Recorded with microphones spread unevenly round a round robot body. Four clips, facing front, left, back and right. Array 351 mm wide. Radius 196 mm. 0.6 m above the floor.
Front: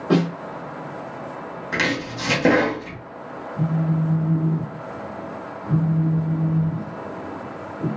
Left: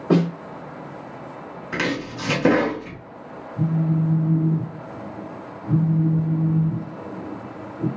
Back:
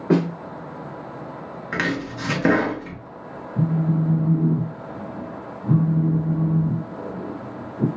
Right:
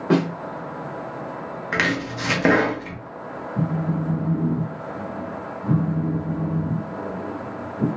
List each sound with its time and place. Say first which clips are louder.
0.1 s a snare drum: left 1 dB, even; 160° left, 0.9 m
1.7 s chopping: right 1 dB, front 1 dB; 140° left, 0.6 m
3.6 s a phone buzzing: left 2 dB, back 1 dB; 95° right, 0.6 m